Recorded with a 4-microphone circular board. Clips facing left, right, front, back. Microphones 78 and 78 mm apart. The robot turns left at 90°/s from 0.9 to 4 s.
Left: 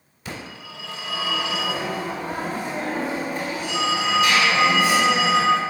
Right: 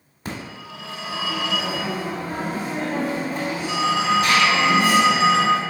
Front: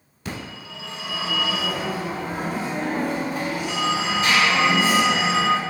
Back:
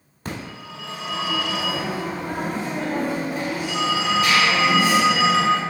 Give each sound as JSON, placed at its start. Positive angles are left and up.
{"t": 0.2, "sound": "a phone ringing", "azimuth_deg": -135, "distance_m": 1.4}